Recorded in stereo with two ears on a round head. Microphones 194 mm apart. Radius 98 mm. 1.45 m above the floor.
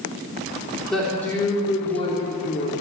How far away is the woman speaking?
About 4 m.